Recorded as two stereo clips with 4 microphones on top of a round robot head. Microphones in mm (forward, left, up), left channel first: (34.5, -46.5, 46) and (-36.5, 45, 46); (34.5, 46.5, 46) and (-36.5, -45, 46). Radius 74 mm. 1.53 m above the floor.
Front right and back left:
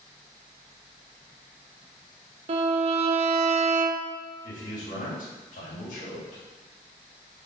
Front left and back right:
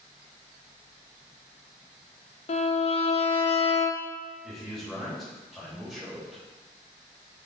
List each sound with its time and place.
2.5 s a violin: 90° left, 0.6 m
4.4 s a man speaking: 35° right, 3.5 m